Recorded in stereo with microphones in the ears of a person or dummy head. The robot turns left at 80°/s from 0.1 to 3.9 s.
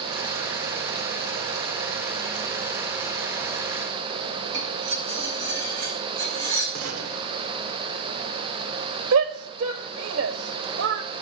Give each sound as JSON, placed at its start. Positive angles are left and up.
{"t": 4.5, "sound": "cutlery clinking", "side_deg": -75, "distance_m": 5.0}
{"t": 6.8, "sound": "a gunshot", "side_deg": -85, "distance_m": 1.1}
{"t": 9.1, "sound": "a shout", "side_deg": -75, "distance_m": 1.0}